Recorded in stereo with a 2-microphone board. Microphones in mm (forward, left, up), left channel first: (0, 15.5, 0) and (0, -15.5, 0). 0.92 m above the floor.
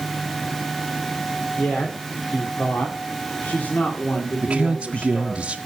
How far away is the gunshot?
No gunshot in this recording.